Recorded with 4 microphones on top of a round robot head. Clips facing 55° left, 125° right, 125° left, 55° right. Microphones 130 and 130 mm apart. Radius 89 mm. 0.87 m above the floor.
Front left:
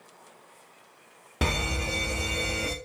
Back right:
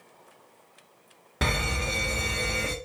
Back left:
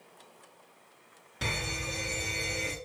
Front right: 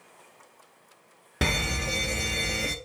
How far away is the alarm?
About 0.9 m.